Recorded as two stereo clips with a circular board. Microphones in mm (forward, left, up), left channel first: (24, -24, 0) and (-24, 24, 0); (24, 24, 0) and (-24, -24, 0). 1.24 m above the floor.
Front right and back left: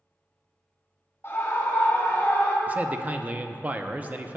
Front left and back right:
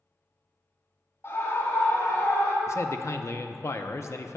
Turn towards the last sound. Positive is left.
turn(degrees=75)